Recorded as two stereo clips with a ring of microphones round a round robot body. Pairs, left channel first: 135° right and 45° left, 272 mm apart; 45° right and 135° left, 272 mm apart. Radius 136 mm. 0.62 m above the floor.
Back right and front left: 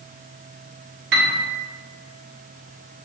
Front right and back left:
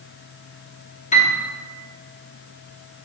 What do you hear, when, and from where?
1.1 s a piano: 15° left, 1.1 m